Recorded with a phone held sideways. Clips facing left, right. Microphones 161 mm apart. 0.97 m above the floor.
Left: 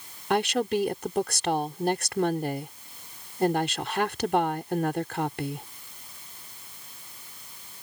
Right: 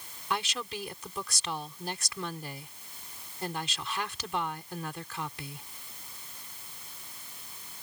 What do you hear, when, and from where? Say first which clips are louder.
0.3 s a woman speaking: left 11 dB; 60° left (ahead or behind)